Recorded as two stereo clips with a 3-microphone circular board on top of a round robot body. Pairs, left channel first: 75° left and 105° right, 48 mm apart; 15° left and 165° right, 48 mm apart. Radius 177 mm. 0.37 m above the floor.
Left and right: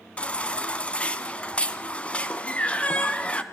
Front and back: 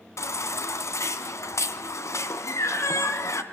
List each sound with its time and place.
0.2 s a baby crying: 10° left, 2 m